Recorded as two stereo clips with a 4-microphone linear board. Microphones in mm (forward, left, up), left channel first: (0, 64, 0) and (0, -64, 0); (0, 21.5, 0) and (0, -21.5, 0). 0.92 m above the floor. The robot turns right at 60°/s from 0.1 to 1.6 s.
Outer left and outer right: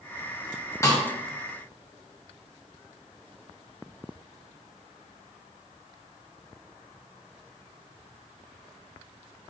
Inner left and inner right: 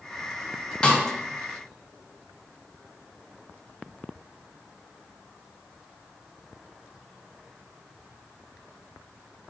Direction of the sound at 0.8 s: 20° left (ahead or behind).